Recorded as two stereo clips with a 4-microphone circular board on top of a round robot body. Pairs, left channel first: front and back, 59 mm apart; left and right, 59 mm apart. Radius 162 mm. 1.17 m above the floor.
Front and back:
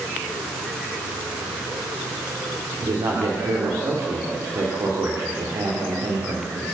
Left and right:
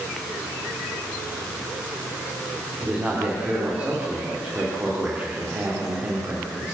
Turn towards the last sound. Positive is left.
turn(degrees=-155)